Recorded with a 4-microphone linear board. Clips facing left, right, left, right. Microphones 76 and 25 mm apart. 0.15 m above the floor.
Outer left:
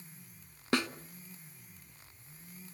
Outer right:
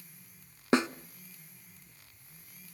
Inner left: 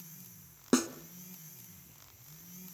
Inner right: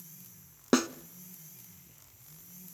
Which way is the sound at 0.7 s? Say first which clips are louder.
Outer right 5 dB, inner right 2 dB; 20° right (ahead or behind).